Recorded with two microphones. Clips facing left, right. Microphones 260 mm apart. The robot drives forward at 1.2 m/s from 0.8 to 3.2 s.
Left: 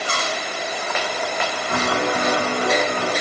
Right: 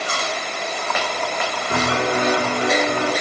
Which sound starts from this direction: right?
A piano, at 1.7 s.